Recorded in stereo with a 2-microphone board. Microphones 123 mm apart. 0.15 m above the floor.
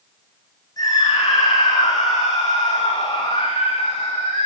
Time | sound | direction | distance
0.8 | a scream | 30° left (ahead or behind) | 8.5 m